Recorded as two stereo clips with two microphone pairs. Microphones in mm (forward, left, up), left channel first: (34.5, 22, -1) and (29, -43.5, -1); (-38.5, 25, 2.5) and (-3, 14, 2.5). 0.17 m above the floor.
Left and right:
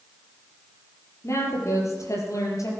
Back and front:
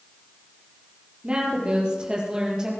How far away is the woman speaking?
About 6 m.